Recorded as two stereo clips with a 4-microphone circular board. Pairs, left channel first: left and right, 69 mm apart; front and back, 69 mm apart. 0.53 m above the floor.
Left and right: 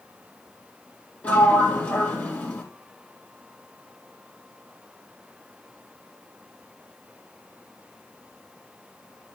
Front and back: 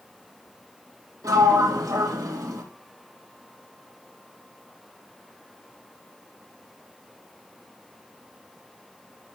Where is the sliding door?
155° left, 4 m.